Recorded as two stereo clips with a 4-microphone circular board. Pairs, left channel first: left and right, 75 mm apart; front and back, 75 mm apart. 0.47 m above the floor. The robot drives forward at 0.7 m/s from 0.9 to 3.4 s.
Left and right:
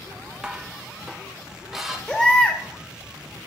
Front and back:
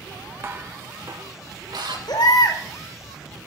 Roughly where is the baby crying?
Ahead.